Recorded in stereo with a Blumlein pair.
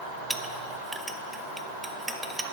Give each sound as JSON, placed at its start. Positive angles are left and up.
{"t": 0.3, "sound": "a clink", "azimuth_deg": -10, "distance_m": 0.5}